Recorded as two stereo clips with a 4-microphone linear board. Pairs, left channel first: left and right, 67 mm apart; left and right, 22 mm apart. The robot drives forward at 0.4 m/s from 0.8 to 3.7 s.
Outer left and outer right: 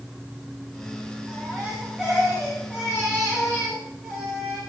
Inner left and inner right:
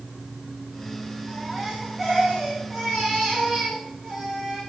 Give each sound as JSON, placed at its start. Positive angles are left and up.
{"t": 1.3, "sound": "a baby crying", "side_deg": -10, "distance_m": 9.5}